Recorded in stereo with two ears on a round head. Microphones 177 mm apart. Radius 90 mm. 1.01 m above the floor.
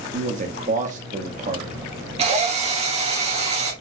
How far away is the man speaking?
About 0.9 m.